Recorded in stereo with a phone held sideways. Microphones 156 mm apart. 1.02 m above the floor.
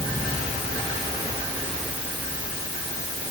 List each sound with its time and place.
Only background noise.